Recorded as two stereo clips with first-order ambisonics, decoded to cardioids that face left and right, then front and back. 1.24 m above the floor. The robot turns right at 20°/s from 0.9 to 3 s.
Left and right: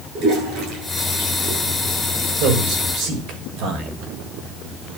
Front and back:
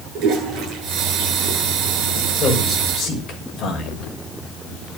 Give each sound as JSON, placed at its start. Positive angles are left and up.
{"t": 0.1, "sound": "a toilet flushing", "azimuth_deg": -135, "distance_m": 9.0}
{"t": 2.4, "sound": "a man speaking", "azimuth_deg": -70, "distance_m": 6.0}